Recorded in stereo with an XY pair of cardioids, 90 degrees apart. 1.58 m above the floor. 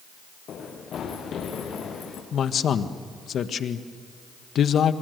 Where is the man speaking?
65° left, 1.6 m.